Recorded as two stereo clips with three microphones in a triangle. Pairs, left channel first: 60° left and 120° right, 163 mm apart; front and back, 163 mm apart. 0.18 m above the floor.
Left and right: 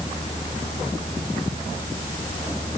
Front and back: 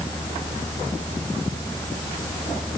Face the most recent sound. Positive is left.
No sound to turn to.